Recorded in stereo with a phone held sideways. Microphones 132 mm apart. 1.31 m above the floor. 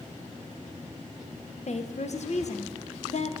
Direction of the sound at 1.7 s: 60° left (ahead or behind).